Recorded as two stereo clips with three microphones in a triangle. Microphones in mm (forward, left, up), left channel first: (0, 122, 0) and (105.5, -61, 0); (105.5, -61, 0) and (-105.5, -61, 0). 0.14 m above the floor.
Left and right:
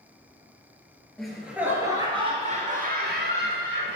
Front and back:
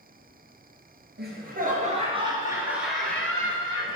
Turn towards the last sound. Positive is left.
turn(degrees=-65)